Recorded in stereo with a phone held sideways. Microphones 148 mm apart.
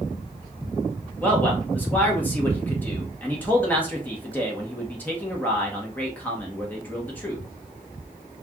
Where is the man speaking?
10° left (ahead or behind), 1.0 m.